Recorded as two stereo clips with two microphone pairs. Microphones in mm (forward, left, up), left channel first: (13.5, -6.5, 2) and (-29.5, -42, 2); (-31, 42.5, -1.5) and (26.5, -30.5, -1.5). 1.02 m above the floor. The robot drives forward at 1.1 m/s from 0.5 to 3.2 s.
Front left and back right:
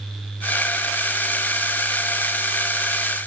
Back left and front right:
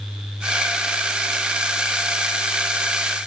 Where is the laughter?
I don't hear laughter.